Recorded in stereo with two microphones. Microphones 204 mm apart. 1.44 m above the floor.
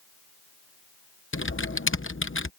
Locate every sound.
1.3 s typing on a keyboard: 80° left